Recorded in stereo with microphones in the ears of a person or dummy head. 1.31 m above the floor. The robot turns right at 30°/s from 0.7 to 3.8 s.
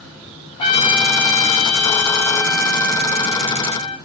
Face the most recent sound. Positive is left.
turn(degrees=125)